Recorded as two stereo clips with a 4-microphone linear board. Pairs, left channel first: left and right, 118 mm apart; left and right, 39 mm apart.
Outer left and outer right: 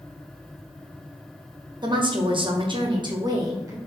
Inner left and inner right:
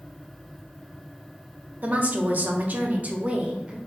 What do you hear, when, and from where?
1.8 s a woman speaking: 40° right (ahead or behind), 0.9 m; by 3.8 s 30° right (ahead or behind), 1.1 m